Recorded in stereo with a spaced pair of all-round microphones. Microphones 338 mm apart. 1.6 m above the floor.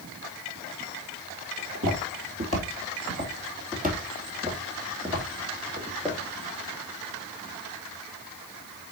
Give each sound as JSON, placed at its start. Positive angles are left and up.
{"t": 1.6, "sound": "footsteps", "side_deg": -45, "distance_m": 2.5}